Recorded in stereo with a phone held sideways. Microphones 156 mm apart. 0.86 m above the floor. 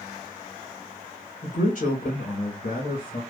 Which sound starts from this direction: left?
A man speaking, at 1.4 s.